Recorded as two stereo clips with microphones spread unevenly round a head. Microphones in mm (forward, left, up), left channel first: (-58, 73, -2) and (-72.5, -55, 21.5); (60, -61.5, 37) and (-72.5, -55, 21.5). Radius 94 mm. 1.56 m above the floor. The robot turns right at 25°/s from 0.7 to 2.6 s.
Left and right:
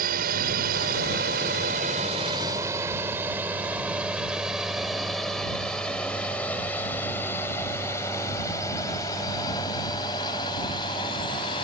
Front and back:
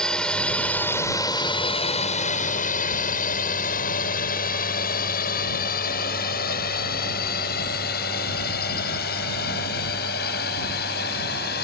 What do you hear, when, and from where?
0.0 s a drone: 85° right; by 11.6 s 15° left